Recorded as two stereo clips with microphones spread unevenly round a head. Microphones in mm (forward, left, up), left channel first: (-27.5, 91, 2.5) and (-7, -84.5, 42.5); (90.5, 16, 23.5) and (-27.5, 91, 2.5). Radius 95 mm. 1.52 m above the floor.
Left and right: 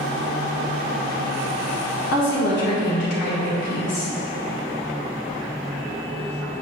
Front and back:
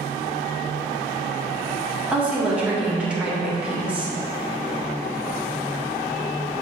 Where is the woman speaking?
65° left, 2 m.